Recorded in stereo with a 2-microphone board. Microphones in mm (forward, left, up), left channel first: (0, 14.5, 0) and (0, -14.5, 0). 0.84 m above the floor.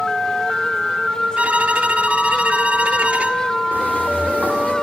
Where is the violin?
50° right (ahead or behind), 1.2 m.